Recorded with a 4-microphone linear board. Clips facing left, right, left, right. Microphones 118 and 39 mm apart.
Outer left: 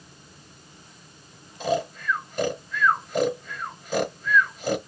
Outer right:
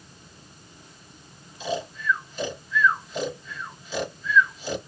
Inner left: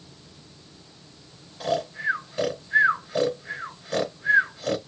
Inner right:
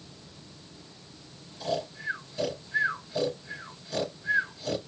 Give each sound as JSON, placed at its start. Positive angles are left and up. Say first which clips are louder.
{"t": 1.6, "sound": "snoring", "louder": "outer left 4 dB, inner left 6 dB", "side_deg": 55, "distance_m": 3.0}